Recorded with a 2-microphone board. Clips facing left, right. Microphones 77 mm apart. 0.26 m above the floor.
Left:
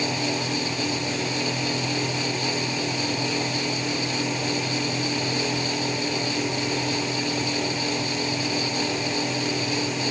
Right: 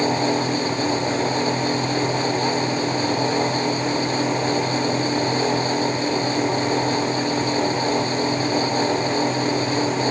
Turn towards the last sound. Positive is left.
No sound to turn to.